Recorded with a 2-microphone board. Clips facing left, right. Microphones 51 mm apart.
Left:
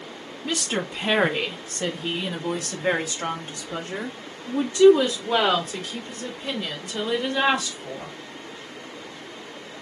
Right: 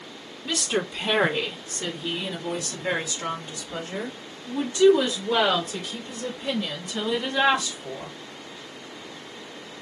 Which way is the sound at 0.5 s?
30° left (ahead or behind).